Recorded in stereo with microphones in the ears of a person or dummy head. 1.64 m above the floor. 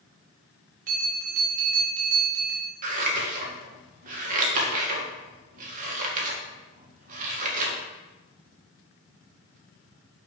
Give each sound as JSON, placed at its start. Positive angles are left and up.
{"t": 0.9, "sound": "a bell", "side_deg": -45, "distance_m": 1.8}
{"t": 2.8, "sound": "scissors", "side_deg": -45, "distance_m": 1.7}